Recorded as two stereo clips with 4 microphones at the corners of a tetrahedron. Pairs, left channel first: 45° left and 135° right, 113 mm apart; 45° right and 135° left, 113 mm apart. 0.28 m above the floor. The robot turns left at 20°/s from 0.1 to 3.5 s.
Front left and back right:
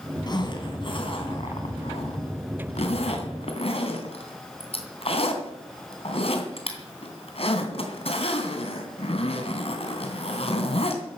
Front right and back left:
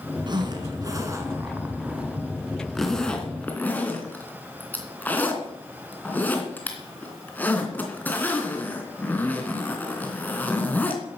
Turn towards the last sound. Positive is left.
turn(degrees=30)